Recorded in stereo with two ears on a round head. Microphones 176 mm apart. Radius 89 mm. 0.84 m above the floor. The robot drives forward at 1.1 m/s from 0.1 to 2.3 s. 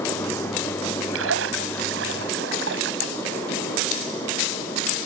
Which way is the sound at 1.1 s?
80° right.